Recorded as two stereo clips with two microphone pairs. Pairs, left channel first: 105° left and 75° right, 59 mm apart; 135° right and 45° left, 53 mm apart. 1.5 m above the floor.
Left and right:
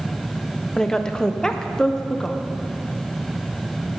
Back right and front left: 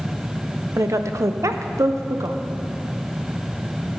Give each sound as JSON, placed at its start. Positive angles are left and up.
{"t": 0.8, "sound": "a woman speaking", "azimuth_deg": 30, "distance_m": 0.8}